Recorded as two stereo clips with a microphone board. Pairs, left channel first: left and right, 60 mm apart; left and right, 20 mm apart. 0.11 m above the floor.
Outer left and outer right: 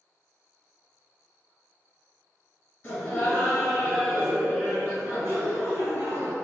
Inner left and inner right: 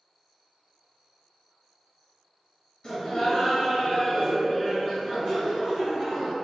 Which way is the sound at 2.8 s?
20° left (ahead or behind).